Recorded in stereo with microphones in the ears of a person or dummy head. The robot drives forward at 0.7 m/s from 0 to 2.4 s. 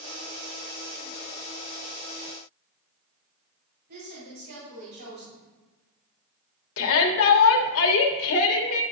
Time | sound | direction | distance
3.9 | a woman speaking | 60° right (ahead or behind) | 3 m
6.8 | a shout | 65° left (ahead or behind) | 1.0 m